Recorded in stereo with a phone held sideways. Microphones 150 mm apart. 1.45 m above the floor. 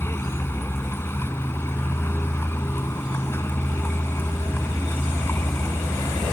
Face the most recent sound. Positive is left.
turn(degrees=15)  # may be behind; listen again after turning